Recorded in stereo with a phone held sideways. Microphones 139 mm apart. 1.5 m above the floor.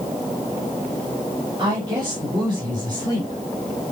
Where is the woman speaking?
35° right (ahead or behind), 8.5 m; by 3.4 s 30° right (ahead or behind), 9 m.